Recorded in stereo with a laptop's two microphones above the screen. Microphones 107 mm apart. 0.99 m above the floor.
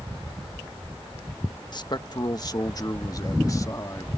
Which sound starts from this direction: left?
A man speaking, at 1.7 s.